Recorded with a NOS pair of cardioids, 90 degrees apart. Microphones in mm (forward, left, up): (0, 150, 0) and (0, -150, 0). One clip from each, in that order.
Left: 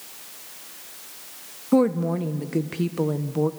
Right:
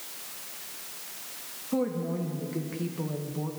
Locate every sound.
1.7 s a woman speaking: 50° left, 0.7 m